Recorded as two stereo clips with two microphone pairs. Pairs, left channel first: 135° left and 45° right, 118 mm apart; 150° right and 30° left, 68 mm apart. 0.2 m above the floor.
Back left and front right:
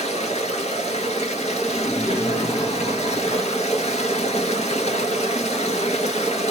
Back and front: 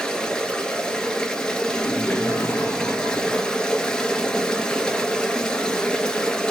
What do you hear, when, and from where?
0.0 s running water: 135° left, 1.3 m
1.7 s laughter: 175° left, 2.5 m